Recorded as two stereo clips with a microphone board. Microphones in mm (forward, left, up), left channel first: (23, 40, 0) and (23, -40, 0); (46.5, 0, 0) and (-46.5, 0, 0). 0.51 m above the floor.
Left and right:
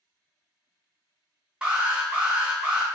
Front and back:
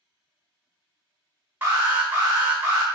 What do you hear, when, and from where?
1.6 s an alarm: 155° right, 0.8 m